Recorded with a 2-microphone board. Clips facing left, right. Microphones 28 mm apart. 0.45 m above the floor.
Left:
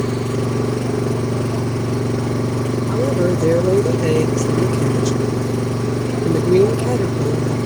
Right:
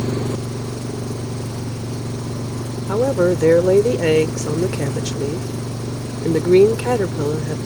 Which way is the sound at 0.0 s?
55° left (ahead or behind).